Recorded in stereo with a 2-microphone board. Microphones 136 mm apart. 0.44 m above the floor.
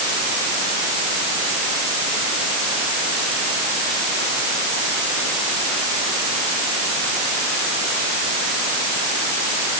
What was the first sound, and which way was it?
Only background noise.